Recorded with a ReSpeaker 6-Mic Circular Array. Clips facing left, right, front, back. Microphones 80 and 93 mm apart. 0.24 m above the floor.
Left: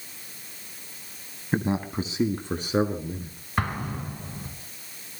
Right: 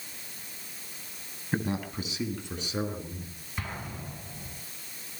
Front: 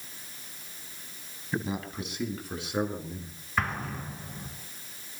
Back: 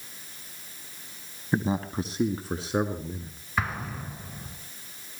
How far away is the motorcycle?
No motorcycle in this recording.